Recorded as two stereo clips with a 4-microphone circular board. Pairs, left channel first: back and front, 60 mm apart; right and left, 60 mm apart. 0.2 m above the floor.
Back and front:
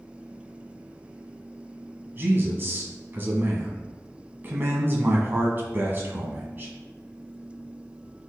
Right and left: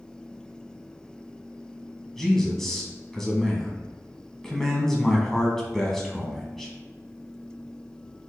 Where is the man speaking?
10° right, 1.3 m.